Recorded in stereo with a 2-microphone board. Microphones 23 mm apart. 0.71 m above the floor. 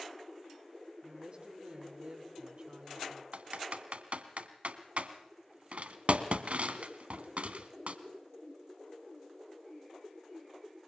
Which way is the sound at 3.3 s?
75° right (ahead or behind).